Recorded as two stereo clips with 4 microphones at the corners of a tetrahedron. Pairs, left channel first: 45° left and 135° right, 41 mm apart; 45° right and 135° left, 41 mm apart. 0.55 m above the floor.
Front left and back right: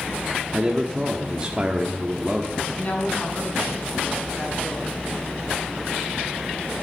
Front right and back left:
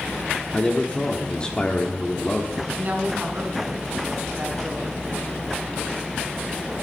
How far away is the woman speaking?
About 5 m.